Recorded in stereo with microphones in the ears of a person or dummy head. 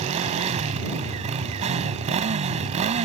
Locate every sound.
0.0 s a motorcycle: 35° right (ahead or behind)